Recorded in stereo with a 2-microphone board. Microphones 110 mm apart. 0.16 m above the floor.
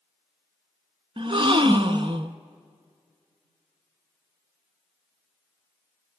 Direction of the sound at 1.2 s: 50° right (ahead or behind).